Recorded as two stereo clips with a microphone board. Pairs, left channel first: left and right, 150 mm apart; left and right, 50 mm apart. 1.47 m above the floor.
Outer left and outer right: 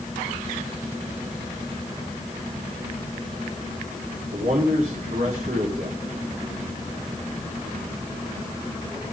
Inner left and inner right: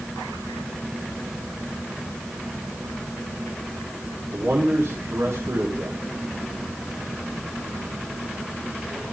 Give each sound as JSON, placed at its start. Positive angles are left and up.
{"t": 4.3, "sound": "a man speaking", "side_deg": -80, "distance_m": 4.5}